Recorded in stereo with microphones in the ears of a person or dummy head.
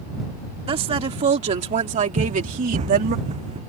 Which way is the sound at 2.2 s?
45° right (ahead or behind).